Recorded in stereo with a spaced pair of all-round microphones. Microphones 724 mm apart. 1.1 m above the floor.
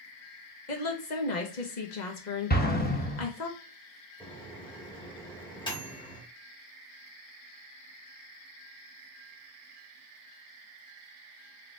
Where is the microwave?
5° left (ahead or behind), 1.4 m.